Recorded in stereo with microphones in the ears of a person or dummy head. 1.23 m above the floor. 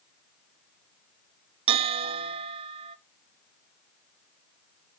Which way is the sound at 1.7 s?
30° right (ahead or behind).